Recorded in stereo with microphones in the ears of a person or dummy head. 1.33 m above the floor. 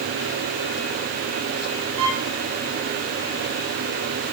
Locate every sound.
2.0 s a violin: 80° right, 4.5 m